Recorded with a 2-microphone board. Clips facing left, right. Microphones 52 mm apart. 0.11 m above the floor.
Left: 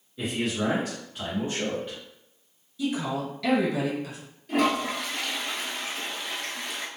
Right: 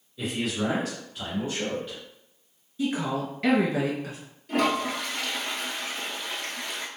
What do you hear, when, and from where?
0.2 s a man speaking: 25° left (ahead or behind), 1.7 m
2.8 s a woman speaking: 35° right (ahead or behind), 1.3 m
4.5 s a toilet flushing: centre (ahead or behind), 0.9 m